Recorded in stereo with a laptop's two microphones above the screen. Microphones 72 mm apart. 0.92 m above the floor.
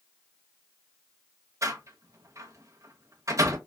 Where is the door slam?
45° right (ahead or behind), 0.6 m.